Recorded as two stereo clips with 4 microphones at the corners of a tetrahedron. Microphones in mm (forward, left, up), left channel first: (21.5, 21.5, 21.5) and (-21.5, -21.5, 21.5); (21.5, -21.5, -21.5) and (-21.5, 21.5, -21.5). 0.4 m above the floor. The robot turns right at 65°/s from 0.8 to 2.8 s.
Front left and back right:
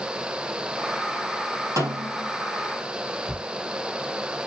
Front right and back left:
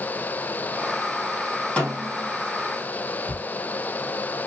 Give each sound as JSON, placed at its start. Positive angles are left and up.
{"t": 1.8, "sound": "a snare drum", "azimuth_deg": -120, "distance_m": 3.0}
{"t": 3.3, "sound": "ticking", "azimuth_deg": -70, "distance_m": 2.0}